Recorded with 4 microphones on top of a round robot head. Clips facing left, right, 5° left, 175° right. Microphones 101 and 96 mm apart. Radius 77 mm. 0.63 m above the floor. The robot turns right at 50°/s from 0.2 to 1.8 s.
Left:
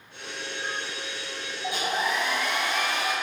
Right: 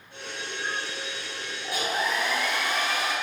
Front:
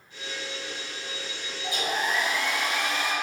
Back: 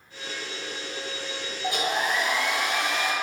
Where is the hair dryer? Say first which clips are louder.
Left 1 dB, back 2 dB; 155° left, 3 m; by 3.1 s 165° left, 3 m.